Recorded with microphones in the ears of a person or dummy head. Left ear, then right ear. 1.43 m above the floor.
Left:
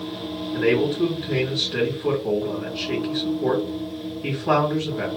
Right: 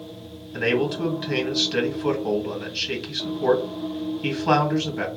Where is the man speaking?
45° right (ahead or behind), 1.9 m.